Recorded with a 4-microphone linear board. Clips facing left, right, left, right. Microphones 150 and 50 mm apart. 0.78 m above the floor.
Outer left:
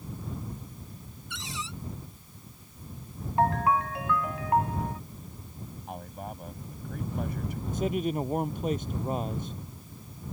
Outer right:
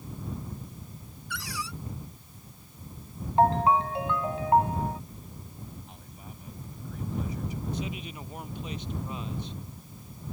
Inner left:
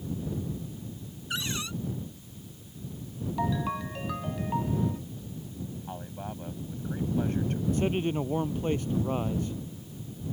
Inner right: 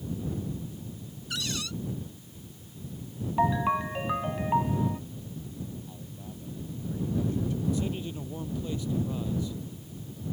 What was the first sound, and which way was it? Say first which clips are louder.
A cupboard door: outer right 2 dB, inner left 1 dB; 25° left (ahead or behind).